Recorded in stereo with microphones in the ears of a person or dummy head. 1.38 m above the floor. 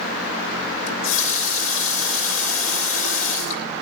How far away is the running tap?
About 2 m.